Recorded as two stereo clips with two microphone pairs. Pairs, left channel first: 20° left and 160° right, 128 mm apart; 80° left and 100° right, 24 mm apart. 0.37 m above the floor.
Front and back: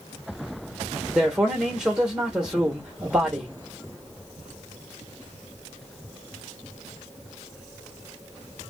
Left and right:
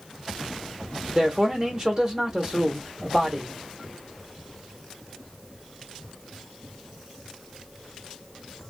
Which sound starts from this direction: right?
A man speaking, at 1.1 s.